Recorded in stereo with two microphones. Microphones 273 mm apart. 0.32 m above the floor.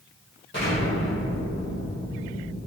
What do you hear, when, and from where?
0.5 s an explosion: 45° left (ahead or behind), 1.9 m